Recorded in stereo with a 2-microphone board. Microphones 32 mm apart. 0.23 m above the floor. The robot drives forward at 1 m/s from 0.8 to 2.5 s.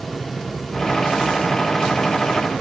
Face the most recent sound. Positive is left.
No sound to turn to.